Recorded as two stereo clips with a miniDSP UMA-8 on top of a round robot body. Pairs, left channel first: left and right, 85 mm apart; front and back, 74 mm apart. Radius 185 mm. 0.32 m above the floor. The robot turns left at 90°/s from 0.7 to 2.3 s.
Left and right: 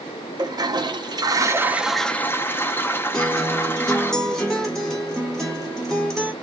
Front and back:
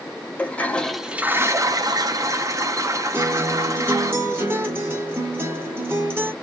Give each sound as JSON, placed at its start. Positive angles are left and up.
{"t": 0.4, "sound": "a toilet flushing", "azimuth_deg": -65, "distance_m": 0.8}
{"t": 3.1, "sound": "a guitar", "azimuth_deg": 170, "distance_m": 1.5}